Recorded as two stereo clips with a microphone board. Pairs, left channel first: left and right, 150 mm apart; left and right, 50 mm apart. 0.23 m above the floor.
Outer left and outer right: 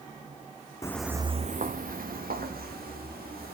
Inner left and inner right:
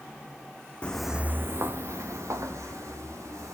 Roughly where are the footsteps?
Left.